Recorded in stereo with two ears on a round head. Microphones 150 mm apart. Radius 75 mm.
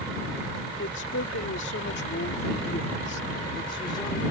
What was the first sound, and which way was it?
A woman speaking, 80° left.